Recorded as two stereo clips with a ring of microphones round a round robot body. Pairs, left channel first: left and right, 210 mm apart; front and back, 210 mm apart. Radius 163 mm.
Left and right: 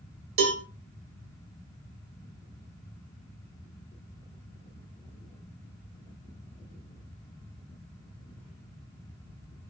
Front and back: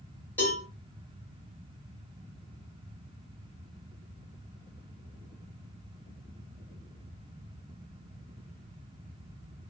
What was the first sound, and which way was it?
A cowbell, 85° right.